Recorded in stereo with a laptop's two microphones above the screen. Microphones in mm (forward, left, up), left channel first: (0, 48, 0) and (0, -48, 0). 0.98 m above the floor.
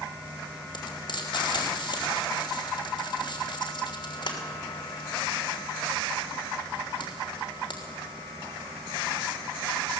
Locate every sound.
0.7 s frying: 55° left (ahead or behind), 3 m